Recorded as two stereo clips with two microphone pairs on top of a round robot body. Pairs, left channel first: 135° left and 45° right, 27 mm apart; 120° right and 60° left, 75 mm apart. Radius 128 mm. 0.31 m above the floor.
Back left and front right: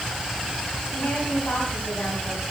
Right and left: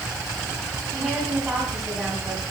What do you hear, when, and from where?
0.9 s a woman speaking: 135° left, 3 m; by 2.4 s 150° left, 3 m